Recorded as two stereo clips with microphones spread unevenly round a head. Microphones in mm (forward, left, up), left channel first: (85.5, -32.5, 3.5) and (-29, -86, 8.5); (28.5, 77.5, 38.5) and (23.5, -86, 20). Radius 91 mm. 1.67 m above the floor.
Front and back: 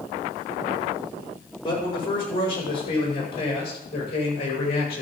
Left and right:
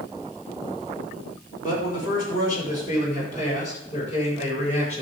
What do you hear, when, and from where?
1.6 s a man speaking: 50° left, 6 m; by 5.0 s 40° left, 7.5 m